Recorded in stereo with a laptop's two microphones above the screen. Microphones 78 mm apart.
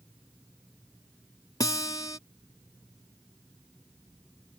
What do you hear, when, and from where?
1.6 s a guitar: 50° left (ahead or behind)